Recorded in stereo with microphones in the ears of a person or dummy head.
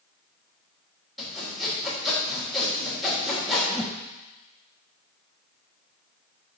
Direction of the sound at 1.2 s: Centre (ahead or behind).